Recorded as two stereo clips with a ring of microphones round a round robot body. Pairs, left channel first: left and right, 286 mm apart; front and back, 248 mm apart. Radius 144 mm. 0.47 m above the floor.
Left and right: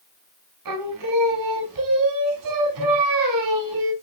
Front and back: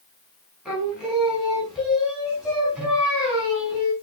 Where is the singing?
95° right, 5 m.